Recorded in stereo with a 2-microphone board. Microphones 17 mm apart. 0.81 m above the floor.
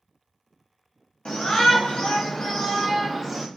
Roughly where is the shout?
Left.